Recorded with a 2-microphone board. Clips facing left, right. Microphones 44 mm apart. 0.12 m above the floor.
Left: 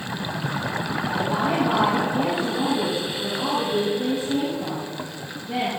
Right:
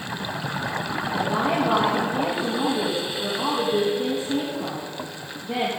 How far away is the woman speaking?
About 5.5 m.